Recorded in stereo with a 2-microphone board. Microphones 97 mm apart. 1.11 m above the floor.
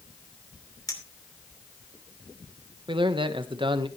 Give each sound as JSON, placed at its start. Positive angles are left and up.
{"t": 0.9, "sound": "a clink", "side_deg": 40, "distance_m": 2.5}
{"t": 2.9, "sound": "a man speaking", "side_deg": -60, "distance_m": 1.1}